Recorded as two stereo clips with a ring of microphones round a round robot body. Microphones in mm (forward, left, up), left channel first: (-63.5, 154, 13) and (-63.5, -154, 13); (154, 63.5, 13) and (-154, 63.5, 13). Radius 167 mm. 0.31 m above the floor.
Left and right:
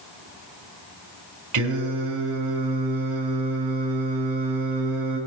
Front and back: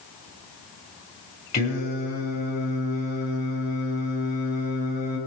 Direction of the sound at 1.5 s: 60° right.